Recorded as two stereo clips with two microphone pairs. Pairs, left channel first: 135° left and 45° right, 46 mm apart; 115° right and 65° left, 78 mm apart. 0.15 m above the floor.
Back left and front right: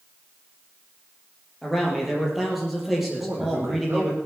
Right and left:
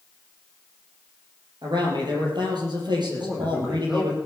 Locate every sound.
1.6 s a man speaking: 40° left, 5 m
3.2 s a man speaking: 15° right, 6.5 m